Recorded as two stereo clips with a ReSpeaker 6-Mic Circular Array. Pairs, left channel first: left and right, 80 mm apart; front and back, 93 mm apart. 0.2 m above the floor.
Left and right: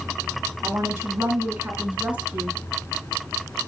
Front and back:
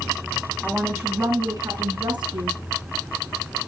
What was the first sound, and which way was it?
A woman speaking, 105° right.